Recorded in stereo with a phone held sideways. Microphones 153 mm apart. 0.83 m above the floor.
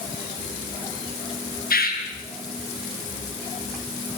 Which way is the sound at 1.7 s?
80° left.